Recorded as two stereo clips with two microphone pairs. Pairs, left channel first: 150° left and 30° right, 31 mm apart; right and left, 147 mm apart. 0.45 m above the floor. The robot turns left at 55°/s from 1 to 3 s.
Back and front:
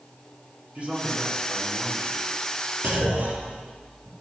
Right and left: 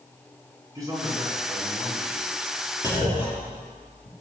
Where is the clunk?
30° right, 4.5 m; by 4.1 s 40° right, 4.5 m.